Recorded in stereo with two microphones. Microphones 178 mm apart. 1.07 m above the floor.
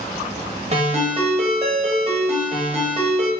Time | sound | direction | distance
0.7 | a ringtone | 35° right (ahead or behind) | 0.8 m